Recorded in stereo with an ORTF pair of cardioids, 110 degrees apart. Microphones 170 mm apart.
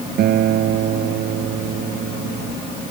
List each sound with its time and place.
0.2 s a guitar: 65° right